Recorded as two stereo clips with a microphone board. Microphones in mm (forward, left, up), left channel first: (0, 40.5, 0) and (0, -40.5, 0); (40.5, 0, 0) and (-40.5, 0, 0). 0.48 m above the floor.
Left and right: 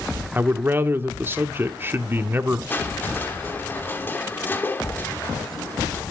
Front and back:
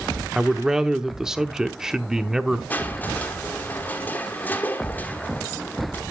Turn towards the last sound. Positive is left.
turn(degrees=45)